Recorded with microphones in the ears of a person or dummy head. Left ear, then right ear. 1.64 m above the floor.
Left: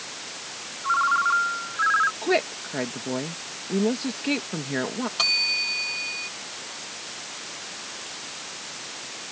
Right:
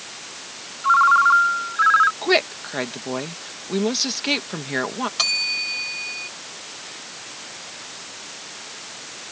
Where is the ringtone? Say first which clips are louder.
Right 7 dB; 40° right (ahead or behind).